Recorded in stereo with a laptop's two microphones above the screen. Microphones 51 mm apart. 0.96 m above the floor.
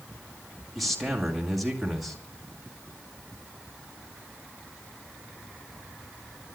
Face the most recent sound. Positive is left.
turn(degrees=0)  # may be behind; listen again after turning